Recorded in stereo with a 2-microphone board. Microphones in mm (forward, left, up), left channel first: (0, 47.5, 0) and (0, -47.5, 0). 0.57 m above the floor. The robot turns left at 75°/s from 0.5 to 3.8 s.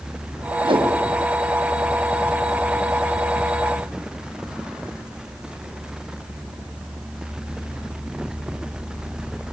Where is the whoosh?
70° right (ahead or behind), 4 m; by 0.9 s 75° right (ahead or behind), 4 m.